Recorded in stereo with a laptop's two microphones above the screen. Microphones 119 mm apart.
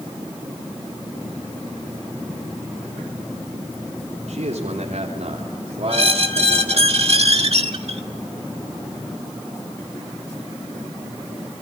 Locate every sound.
4.3 s a man speaking: 75° right (ahead or behind), 3.5 m; by 6.9 s 30° right (ahead or behind), 3 m
5.9 s a squeak: 60° right (ahead or behind), 1.9 m